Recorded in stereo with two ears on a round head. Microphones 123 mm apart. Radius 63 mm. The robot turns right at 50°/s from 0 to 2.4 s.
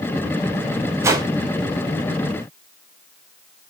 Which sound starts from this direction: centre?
A whoosh, at 1.0 s.